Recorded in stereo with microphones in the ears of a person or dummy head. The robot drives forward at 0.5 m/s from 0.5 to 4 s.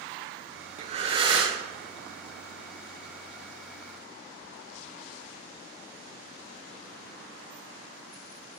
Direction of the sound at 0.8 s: 45° right (ahead or behind).